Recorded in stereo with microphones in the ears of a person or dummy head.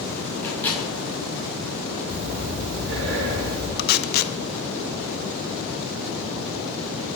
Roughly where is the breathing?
Right.